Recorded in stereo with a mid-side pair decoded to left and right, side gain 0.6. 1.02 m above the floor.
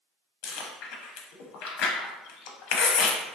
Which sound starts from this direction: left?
Chewing, at 0.4 s.